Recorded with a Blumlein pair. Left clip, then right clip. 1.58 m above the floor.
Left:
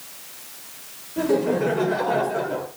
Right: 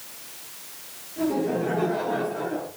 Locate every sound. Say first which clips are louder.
1.2 s laughter: left 4 dB; 30° left, 6 m; by 2.7 s 25° left, 5.5 m